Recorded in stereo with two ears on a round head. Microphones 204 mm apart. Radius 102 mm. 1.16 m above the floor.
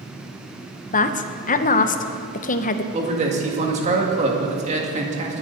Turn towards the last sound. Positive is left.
turn(degrees=-30)  # may be behind; listen again after turning